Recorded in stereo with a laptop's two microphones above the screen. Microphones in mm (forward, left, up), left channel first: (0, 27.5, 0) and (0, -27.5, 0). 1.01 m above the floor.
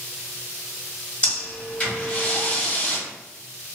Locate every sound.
1.2 s breathing: 30° left (ahead or behind), 1.2 m